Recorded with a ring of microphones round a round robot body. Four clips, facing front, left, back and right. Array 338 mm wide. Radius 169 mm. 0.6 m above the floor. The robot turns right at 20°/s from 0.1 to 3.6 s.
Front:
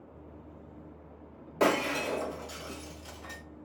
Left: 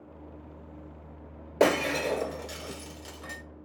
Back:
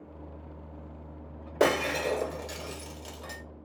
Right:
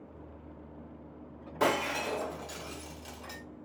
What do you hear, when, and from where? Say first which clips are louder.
1.6 s breaking glass: left 5 dB, back 2 dB; 125° left, 1.2 m; by 3.4 s 165° left, 1.2 m